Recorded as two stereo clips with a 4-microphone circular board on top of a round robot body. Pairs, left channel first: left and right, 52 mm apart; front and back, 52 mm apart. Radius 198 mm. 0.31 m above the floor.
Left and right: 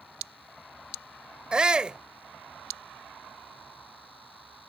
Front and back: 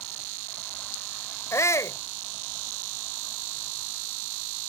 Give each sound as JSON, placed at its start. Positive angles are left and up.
{"t": 1.5, "sound": "a shout", "azimuth_deg": -20}